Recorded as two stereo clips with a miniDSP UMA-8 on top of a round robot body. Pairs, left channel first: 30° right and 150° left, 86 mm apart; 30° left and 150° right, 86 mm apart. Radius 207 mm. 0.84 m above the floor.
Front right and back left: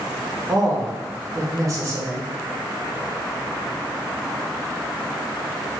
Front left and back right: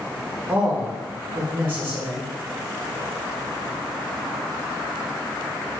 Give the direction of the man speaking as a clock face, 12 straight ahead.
7 o'clock.